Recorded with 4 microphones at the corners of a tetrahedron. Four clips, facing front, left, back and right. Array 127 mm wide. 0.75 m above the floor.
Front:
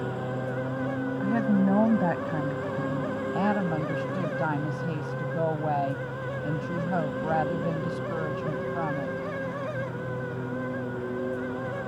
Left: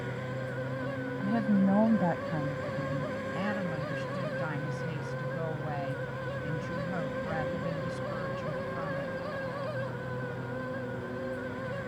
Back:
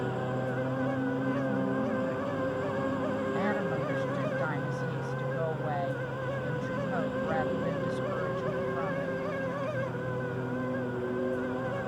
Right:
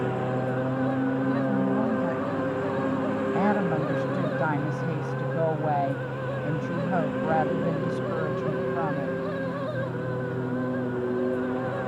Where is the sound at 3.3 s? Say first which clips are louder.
Right 10 dB, front 3 dB; 55° right.